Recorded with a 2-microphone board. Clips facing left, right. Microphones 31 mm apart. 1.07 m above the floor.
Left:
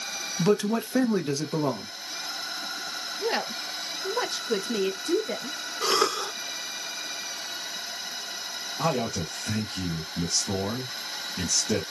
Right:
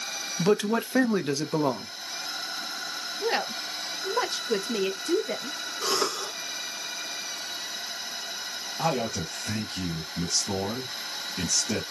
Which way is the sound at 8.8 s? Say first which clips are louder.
Even; 10° right (ahead or behind).